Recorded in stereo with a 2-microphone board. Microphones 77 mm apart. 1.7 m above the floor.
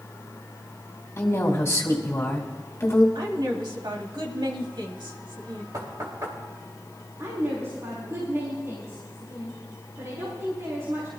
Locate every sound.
1.2 s a woman speaking: 35° left (ahead or behind), 2.5 m
3.1 s a woman speaking: 75° right (ahead or behind), 2.5 m
5.7 s knocking: 50° right (ahead or behind), 2.5 m
7.2 s a woman speaking: 40° right (ahead or behind), 4 m